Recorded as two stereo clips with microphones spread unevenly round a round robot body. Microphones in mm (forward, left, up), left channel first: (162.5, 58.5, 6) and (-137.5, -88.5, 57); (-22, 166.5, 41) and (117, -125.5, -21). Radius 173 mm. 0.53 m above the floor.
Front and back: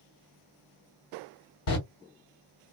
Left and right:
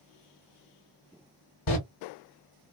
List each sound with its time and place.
1.7 s a door slam: 60° left, 1.5 m